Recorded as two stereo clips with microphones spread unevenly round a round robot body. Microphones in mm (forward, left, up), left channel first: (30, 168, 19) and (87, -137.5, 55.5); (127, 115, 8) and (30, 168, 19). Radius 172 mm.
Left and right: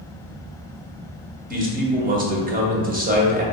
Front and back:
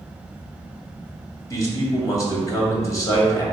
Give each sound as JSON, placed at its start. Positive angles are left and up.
{"t": 1.5, "sound": "a man speaking", "azimuth_deg": -25, "distance_m": 0.8}